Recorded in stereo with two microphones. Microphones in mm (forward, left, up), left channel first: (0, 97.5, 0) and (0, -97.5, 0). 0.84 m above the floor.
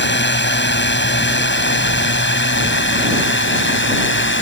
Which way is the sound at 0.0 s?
65° left (ahead or behind).